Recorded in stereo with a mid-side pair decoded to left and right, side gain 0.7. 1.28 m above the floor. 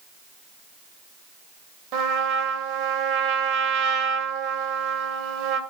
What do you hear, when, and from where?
1.9 s a trumpet: 65° right, 2.5 m